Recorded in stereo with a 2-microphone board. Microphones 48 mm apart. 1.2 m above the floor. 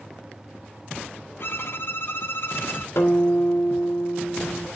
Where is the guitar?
70° left (ahead or behind), 2.5 m.